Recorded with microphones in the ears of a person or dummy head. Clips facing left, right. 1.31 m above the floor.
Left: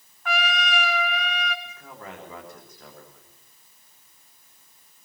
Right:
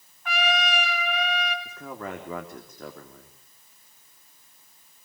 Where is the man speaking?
60° right (ahead or behind), 3 m.